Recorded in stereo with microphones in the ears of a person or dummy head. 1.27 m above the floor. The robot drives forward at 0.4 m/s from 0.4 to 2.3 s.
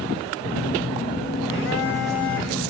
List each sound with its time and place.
0.4 s a phone buzzing: 65° left (ahead or behind), 2.5 m; by 2.7 s 75° left (ahead or behind), 2 m